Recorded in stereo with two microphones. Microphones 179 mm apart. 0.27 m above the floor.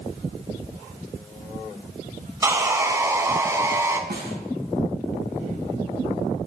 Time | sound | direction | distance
2.4 | sawing | 20° right (ahead or behind) | 0.6 m
4.1 | a snare drum | 65° right (ahead or behind) | 0.9 m